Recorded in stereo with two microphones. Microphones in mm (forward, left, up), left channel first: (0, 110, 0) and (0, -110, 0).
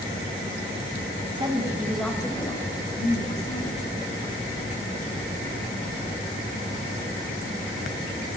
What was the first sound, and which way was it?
A woman speaking, 25° right (ahead or behind).